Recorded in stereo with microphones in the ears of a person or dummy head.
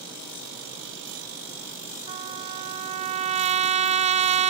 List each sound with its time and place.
2.1 s a trumpet: 40° right (ahead or behind)